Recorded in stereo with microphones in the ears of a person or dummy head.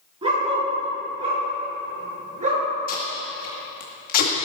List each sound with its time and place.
0.2 s a dog barking: 30° right (ahead or behind), 5.5 m; by 2.6 s 40° right (ahead or behind), 6.5 m
2.9 s tape being pulled: 45° left (ahead or behind), 2 m